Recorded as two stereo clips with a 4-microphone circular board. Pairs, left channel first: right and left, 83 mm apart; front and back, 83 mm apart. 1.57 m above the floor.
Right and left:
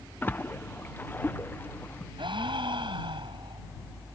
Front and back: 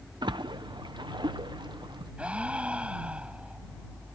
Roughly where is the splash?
Behind right.